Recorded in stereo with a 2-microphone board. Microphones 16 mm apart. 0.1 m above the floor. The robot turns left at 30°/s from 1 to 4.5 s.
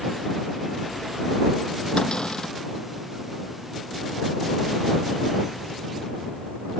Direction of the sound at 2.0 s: 55° left (ahead or behind).